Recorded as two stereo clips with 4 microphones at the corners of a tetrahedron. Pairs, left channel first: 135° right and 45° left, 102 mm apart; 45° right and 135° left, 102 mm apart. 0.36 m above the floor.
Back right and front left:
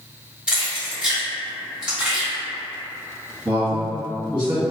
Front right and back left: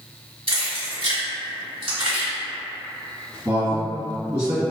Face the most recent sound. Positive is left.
turn(degrees=85)